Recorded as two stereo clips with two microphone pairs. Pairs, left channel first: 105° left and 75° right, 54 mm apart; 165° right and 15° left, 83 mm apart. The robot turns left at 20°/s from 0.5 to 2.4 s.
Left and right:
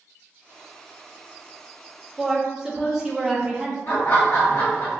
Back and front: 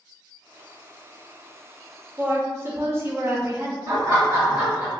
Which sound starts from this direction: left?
Laughter, at 3.9 s.